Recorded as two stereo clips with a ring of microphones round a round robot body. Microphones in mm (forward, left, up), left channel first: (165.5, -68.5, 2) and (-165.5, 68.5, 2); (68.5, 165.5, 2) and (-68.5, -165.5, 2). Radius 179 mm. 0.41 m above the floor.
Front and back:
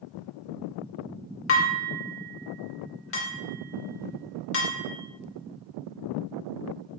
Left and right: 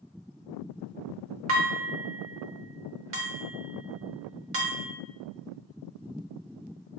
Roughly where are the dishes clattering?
Right.